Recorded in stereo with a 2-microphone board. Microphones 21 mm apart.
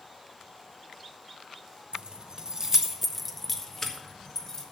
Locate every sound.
1.9 s keys jangling: 55° right (ahead or behind), 0.9 m; by 4.6 s 35° left (ahead or behind), 1.5 m